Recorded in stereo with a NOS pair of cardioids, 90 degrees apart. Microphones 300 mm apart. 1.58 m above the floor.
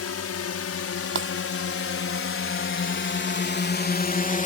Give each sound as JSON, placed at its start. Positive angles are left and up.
{"t": 0.0, "sound": "a drone", "azimuth_deg": 55}
{"t": 1.1, "sound": "breaking glass", "azimuth_deg": -40}